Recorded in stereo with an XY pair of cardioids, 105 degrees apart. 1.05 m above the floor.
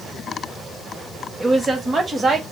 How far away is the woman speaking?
About 1.2 m.